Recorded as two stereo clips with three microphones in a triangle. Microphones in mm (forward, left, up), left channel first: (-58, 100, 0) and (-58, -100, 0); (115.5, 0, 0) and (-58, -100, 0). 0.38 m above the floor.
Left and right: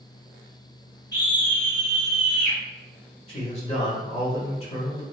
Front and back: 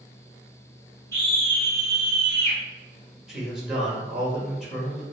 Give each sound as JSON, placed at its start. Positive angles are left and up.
{"t": 1.1, "sound": "a scream", "azimuth_deg": 95, "distance_m": 1.5}
{"t": 3.3, "sound": "a man speaking", "azimuth_deg": 125, "distance_m": 1.0}